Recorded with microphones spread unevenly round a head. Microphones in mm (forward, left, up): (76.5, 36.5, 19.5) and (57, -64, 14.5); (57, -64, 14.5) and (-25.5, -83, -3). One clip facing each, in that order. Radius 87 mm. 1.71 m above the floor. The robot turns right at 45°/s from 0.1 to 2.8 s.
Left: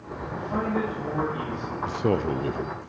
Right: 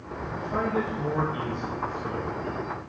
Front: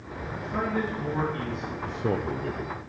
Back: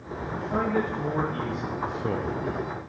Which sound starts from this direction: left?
A man speaking, at 1.9 s.